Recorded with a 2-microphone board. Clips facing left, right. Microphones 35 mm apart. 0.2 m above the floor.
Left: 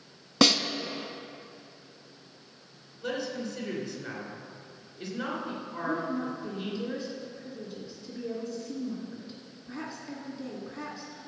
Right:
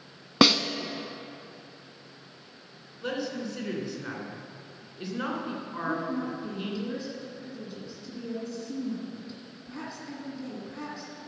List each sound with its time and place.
0.4 s a snare drum: 20° right (ahead or behind), 0.7 m
3.0 s a man speaking: 20° right (ahead or behind), 2.5 m
5.8 s a woman speaking: centre (ahead or behind), 2 m